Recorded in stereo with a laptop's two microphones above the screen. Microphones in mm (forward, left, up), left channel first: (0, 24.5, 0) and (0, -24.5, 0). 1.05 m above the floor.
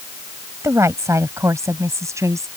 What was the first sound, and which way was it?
A woman speaking, 75° right (ahead or behind).